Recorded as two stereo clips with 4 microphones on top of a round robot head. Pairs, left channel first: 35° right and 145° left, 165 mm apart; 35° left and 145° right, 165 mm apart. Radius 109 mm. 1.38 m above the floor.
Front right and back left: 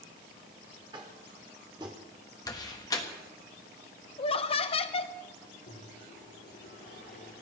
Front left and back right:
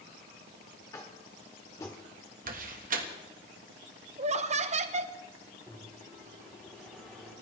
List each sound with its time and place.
0.9 s tapping: 95° left, 1.1 m
2.5 s a door slam: 105° right, 1.4 m
4.2 s laughter: 95° right, 0.9 m
5.7 s a microwave: 50° right, 5.5 m